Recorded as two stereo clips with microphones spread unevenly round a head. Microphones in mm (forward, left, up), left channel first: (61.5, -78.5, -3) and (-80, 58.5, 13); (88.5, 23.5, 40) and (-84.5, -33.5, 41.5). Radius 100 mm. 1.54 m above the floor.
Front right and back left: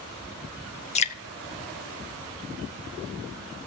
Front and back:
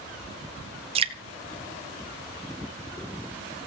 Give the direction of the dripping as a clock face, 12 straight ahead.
3 o'clock.